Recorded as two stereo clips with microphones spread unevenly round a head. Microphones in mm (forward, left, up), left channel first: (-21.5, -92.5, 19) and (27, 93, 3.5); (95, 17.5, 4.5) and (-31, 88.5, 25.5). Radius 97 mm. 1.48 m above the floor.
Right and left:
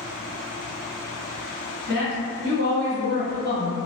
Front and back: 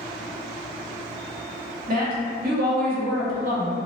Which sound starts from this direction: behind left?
A woman speaking, at 1.9 s.